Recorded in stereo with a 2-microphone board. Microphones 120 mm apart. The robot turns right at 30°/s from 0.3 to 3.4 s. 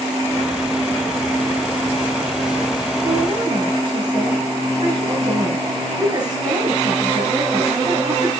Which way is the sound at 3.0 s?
35° right (ahead or behind).